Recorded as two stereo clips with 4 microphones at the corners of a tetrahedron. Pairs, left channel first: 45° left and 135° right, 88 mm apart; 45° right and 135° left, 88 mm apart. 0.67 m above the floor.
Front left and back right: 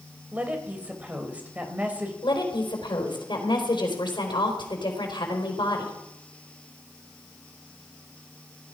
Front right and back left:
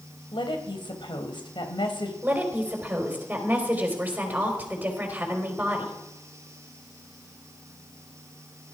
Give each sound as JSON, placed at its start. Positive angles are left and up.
{"t": 0.3, "sound": "a woman speaking", "azimuth_deg": -65, "distance_m": 3.0}
{"t": 2.2, "sound": "a woman speaking", "azimuth_deg": 65, "distance_m": 3.5}